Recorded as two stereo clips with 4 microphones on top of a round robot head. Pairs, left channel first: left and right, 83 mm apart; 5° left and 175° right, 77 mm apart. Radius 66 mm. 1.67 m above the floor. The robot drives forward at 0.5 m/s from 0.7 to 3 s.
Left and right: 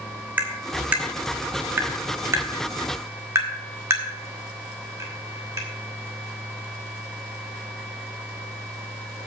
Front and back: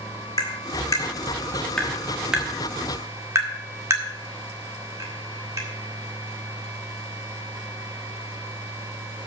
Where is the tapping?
30° right, 1.3 m; by 5.7 s 140° right, 1.2 m.